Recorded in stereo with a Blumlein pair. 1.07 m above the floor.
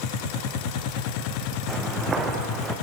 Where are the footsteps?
20° right, 4 m.